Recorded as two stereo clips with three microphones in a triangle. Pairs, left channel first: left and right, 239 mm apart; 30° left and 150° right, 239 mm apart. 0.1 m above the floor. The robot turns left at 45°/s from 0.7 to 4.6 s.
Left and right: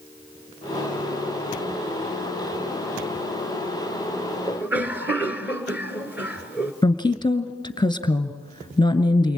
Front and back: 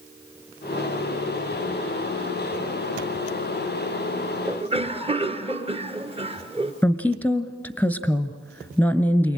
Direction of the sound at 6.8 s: 100° left.